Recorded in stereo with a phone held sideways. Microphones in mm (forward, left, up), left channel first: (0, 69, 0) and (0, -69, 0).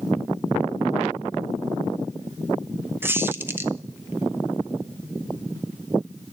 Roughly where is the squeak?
Centre.